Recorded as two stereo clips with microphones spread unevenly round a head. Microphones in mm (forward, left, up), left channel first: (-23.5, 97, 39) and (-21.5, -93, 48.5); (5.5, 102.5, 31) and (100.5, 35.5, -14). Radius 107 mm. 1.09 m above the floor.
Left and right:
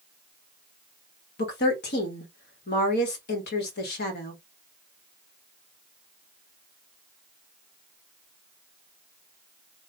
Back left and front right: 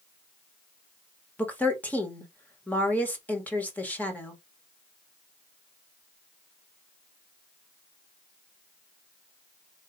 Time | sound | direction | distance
1.4 | a woman speaking | 60° left | 1.6 m